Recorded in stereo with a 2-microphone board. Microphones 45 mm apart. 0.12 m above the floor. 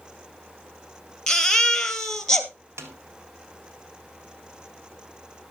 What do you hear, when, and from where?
1.3 s a baby crying: 15° left (ahead or behind), 1.5 m
2.8 s a snare drum: 80° right, 1.2 m